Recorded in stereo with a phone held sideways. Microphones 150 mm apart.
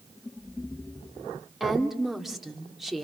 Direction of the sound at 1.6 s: Centre (ahead or behind).